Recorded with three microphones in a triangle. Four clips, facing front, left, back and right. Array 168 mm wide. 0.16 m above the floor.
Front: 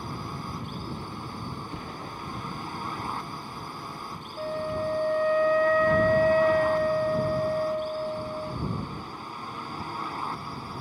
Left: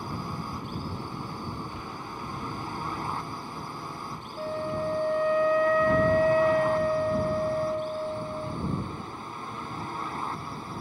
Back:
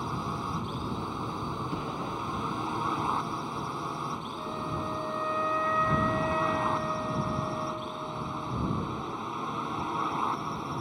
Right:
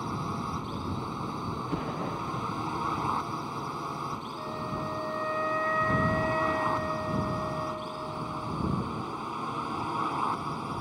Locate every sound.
0.0 s a drone: 155° right; by 10.8 s 130° right
1.6 s an explosion: 100° right
4.4 s a flute: 35° left